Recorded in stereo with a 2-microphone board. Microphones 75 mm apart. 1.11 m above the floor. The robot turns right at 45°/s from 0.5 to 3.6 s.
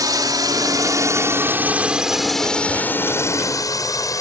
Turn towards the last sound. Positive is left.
turn(degrees=55)  # may be behind; listen again after turning